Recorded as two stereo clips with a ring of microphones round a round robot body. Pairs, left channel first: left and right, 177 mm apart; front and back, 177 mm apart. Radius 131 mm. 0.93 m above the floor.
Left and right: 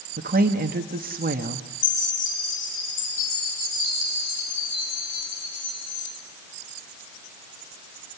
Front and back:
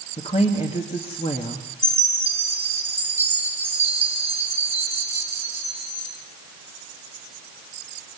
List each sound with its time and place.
0.2 s a woman speaking: 60° right, 1.8 m
1.8 s a chime: 100° left, 8 m